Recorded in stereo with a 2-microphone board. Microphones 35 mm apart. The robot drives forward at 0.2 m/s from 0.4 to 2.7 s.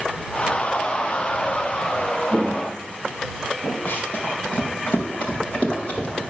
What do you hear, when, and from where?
2.3 s footsteps: 35° right (ahead or behind), 0.7 m; by 3.8 s 45° left (ahead or behind), 1.7 m
3.9 s running footsteps: 45° left (ahead or behind), 2.0 m; by 6.2 s 25° left (ahead or behind), 3 m